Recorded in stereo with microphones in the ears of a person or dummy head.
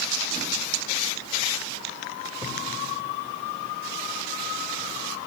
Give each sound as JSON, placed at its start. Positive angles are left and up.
{"t": 2.4, "sound": "a thud", "side_deg": 20, "distance_m": 3.0}